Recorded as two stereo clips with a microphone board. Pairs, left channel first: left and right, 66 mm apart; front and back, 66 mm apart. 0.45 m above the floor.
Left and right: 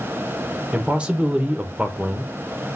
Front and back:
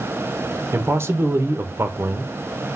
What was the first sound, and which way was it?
A man speaking, 155° right.